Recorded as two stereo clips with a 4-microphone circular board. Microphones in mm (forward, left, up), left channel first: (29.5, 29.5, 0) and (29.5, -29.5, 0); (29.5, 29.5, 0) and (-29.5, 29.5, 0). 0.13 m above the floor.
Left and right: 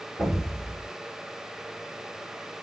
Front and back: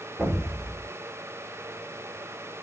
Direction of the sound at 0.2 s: 170° left.